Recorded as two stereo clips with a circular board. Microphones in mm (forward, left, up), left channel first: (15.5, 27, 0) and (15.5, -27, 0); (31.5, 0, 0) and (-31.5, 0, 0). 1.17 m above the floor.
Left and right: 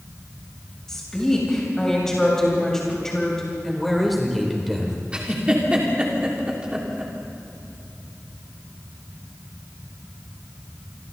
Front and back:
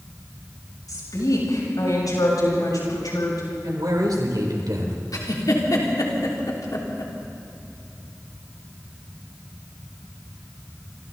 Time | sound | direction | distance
0.9 | a woman speaking | 10° left | 8 m
3.6 | a man speaking | straight behind | 3.5 m
5.1 | a giggle | 20° right | 3.5 m